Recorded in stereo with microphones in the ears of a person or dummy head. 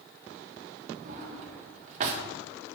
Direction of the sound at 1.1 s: 40° right (ahead or behind).